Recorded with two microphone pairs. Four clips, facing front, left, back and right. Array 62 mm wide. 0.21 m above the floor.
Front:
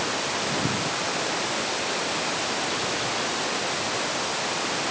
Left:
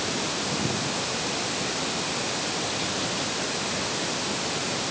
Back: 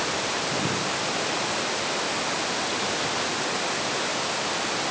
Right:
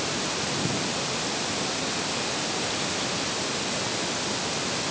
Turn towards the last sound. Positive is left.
No sound to turn to.